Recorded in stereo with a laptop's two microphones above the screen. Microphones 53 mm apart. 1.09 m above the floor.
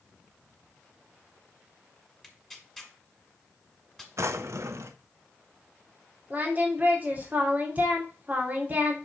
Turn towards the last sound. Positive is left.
turn(degrees=-30)  # may be behind; listen again after turning